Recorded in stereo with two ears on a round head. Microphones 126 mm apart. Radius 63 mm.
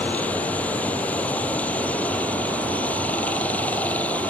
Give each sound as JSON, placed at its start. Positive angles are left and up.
{"t": 0.0, "sound": "running water", "side_deg": 10}